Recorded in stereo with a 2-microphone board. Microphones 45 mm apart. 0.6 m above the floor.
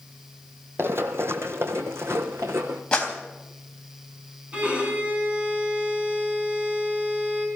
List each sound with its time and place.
0.8 s running footsteps: 55° right (ahead or behind), 1.0 m; by 2.8 s 70° right (ahead or behind), 2 m
2.9 s a clap: 20° left (ahead or behind), 3 m
4.5 s a violin: 30° right (ahead or behind), 6 m